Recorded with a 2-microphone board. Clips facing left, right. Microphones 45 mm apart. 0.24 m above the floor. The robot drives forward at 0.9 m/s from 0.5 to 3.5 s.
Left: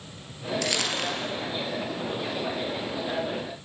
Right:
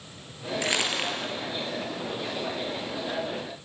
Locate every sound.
0.6 s crumpling: 25° right (ahead or behind), 5 m; by 1.3 s 20° right (ahead or behind), 5.5 m